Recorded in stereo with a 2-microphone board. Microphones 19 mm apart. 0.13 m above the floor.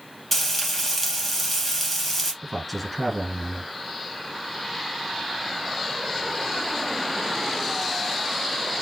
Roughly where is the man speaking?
Centre.